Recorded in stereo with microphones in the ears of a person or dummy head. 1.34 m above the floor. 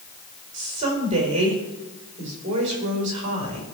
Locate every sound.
0.5 s a woman speaking: 30° right (ahead or behind), 5 m